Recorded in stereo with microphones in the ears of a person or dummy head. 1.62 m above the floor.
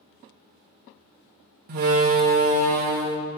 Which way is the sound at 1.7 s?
40° right (ahead or behind).